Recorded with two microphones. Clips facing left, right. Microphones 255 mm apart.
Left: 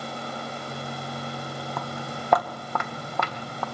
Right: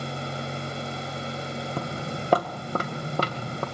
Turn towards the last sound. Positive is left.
turn(degrees=-35)  # may be behind; listen again after turning